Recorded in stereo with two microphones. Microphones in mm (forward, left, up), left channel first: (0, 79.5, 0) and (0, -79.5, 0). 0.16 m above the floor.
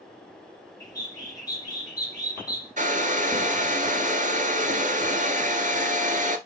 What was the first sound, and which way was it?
A bird, 25° left (ahead or behind).